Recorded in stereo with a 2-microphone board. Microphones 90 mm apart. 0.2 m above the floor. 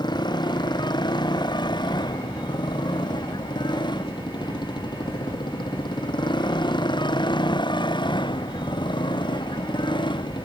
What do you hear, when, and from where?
0.0 s a motorcycle: 55° left (ahead or behind); by 10.4 s 60° left (ahead or behind)